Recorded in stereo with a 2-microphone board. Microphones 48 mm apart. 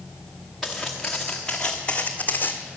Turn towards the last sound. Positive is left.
turn(degrees=50)  # may be behind; listen again after turning